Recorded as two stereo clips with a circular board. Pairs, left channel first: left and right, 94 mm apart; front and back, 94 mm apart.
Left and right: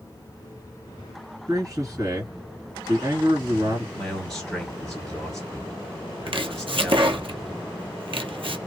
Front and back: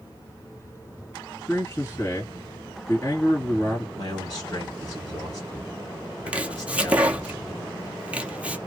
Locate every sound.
1.5 s a man speaking: 50° right, 2.5 m
4.0 s a man speaking: 5° left, 1.9 m
6.3 s chopping: 105° right, 0.6 m